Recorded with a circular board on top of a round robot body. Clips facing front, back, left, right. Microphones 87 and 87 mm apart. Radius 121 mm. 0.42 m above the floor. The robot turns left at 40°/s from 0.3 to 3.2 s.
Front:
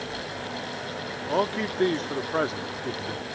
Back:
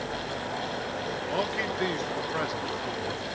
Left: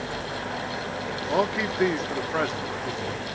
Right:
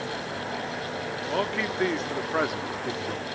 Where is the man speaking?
30° left, 1.4 m; by 3.2 s 45° right, 1.4 m.